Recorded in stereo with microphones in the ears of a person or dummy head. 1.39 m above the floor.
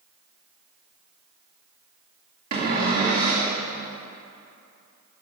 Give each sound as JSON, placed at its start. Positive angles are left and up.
{"t": 2.5, "sound": "a cupboard door", "side_deg": -45, "distance_m": 2.0}